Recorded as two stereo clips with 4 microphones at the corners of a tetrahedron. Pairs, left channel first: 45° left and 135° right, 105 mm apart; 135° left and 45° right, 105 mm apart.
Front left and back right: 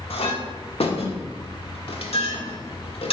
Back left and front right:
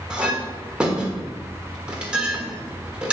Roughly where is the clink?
Ahead left.